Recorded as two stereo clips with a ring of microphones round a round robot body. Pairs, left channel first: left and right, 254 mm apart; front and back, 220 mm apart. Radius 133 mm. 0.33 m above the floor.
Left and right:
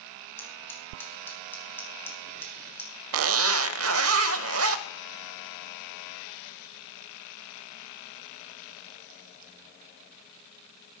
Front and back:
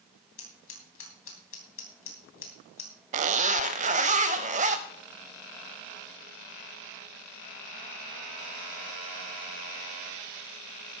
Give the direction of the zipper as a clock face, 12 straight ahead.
4 o'clock.